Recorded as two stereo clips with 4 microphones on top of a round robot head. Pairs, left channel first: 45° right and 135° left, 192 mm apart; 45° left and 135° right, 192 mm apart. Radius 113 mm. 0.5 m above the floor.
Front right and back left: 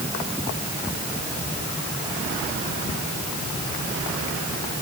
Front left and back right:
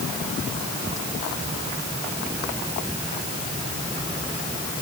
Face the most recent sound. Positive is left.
No sound to turn to.